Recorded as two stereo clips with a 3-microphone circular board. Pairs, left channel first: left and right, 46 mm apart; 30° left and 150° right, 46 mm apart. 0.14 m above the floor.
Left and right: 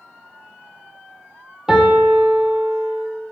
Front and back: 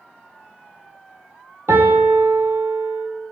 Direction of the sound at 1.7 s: 170° right.